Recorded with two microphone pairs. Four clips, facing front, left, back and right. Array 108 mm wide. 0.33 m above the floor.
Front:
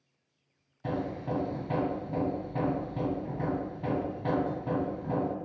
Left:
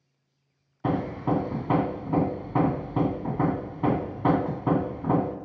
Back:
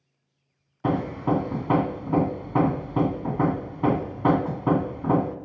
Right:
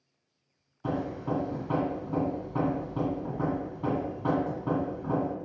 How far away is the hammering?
About 0.6 m.